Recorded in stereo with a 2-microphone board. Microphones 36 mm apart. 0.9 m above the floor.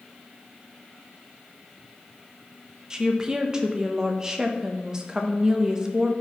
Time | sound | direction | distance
2.9 | a woman speaking | 15° right (ahead or behind) | 0.7 m